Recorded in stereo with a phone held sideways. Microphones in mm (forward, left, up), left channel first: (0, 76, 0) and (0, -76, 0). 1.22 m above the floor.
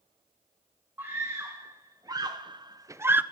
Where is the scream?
15° right (ahead or behind), 1.8 m; by 3.2 s 10° right (ahead or behind), 0.8 m.